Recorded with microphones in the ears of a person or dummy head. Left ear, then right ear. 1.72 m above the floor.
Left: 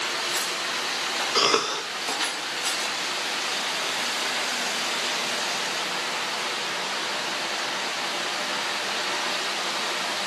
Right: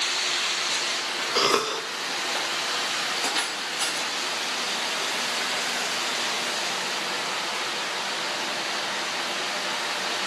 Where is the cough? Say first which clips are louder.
Even; 10° left (ahead or behind), 0.7 m.